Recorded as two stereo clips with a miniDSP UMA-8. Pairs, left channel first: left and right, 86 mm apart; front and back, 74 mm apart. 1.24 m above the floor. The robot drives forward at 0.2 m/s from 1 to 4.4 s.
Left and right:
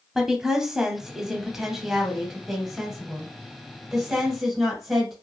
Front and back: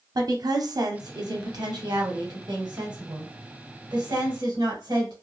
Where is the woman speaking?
175° right, 0.6 m.